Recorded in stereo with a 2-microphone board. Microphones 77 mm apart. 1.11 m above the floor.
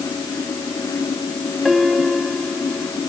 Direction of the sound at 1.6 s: Centre (ahead or behind).